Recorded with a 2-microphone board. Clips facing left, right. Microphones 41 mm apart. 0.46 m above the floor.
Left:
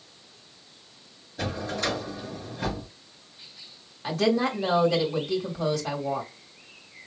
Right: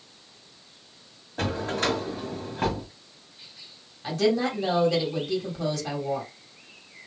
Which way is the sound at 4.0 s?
10° left (ahead or behind).